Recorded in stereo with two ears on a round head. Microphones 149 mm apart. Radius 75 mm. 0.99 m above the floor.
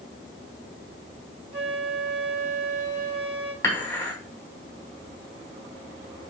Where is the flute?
35° right (ahead or behind), 1.8 m.